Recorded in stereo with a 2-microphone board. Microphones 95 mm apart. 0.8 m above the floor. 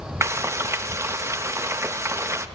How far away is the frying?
About 0.6 m.